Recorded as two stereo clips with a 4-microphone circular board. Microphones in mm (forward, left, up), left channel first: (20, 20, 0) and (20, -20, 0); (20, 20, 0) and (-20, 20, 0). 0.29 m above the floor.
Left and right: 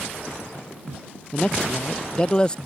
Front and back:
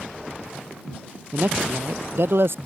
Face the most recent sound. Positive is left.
turn(degrees=160)